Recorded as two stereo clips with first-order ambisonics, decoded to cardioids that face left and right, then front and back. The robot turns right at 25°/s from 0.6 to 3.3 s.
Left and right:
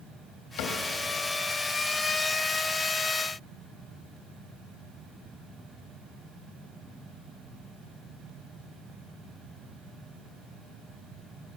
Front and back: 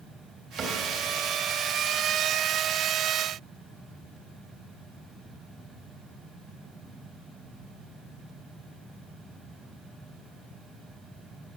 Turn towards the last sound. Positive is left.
turn(degrees=-175)